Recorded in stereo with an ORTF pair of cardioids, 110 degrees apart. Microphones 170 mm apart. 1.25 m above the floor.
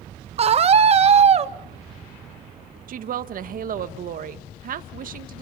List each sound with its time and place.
0.4 s a scream: 35° right, 1.2 m
2.9 s a woman speaking: 55° right, 1.7 m